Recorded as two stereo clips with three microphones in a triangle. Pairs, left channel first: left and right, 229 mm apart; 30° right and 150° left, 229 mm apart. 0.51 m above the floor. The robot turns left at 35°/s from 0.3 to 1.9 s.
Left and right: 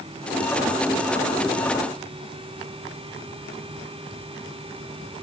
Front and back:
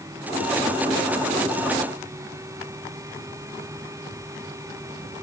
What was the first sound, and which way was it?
Only background noise.